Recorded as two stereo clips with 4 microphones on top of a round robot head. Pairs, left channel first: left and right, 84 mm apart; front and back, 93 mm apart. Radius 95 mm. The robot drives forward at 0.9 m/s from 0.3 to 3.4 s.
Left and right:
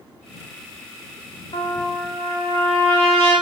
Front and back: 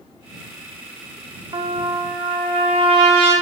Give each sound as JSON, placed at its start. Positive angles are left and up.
{"t": 1.5, "sound": "a trumpet", "azimuth_deg": 140, "distance_m": 1.0}